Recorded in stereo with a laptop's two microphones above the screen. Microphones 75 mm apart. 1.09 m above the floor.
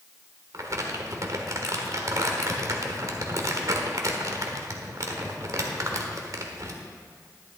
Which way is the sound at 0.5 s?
50° right (ahead or behind).